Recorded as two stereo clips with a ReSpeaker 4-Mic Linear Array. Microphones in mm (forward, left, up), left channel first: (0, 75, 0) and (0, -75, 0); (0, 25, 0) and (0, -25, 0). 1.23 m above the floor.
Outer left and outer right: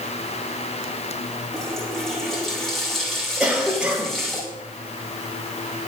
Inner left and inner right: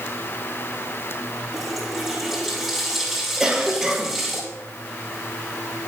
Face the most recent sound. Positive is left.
turn(degrees=-10)  # may be behind; listen again after turning